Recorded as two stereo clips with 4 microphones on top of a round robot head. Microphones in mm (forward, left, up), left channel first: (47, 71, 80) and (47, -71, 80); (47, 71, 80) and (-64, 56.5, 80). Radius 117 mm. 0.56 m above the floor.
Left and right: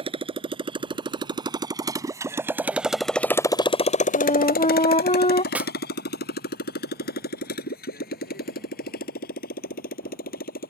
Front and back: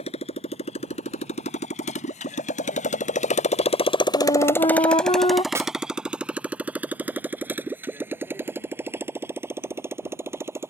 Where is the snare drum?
155° right.